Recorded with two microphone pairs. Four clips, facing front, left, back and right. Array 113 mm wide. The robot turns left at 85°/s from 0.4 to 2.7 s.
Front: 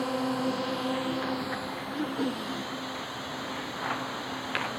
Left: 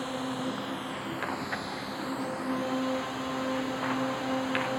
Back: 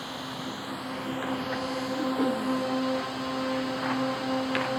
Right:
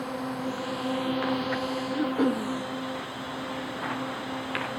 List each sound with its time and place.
0.0 s a drone: 10° right; by 4.8 s 155° left
1.9 s throat clearing: 65° right; by 2.5 s 115° right